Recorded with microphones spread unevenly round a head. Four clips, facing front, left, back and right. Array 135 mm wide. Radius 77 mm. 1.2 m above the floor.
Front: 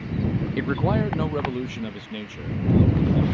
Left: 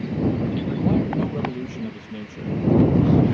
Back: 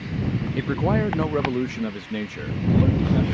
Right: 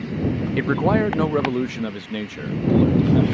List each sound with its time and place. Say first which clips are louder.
0.6 s a man speaking: right 3 dB, back 1 dB; 90° right; by 3.2 s 115° right